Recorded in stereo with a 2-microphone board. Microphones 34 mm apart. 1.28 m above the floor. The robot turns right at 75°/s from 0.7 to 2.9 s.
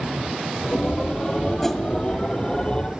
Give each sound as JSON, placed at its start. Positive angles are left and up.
{"t": 1.6, "sound": "a whoosh", "side_deg": 10, "distance_m": 1.8}